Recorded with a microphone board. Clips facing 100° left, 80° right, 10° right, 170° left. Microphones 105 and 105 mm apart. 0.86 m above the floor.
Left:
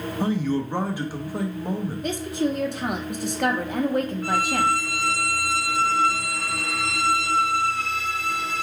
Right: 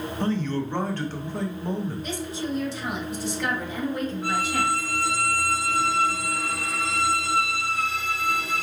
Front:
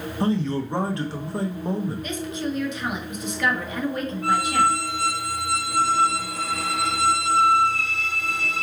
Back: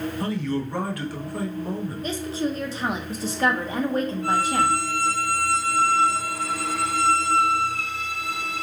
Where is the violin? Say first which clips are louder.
Left 3 dB, front 4 dB; straight ahead, 0.9 m.